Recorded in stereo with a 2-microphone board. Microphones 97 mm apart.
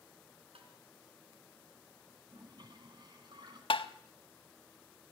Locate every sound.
0.6 s tapping: 75° right (ahead or behind), 4 m
2.3 s a toilet flushing: 50° right (ahead or behind), 3 m
3.7 s tapping: 65° left (ahead or behind), 0.8 m